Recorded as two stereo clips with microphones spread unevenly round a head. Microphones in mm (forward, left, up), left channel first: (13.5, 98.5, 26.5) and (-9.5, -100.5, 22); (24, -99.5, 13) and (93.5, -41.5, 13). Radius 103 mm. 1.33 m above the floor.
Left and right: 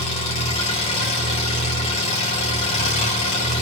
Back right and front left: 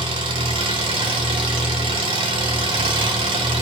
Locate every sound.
0.0 s an engine running: 25° left, 4.5 m